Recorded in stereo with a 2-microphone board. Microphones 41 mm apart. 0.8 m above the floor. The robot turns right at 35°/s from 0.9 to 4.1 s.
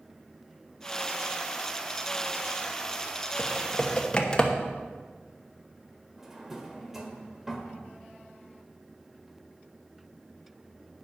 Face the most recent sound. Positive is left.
turn(degrees=-10)  # may be behind; listen again after turning